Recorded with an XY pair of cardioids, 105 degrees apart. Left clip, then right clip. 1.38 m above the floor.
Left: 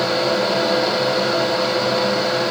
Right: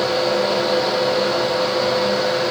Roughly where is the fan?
Ahead left.